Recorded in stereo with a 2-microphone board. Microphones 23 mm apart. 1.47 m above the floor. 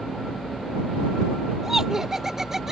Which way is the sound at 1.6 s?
20° right (ahead or behind).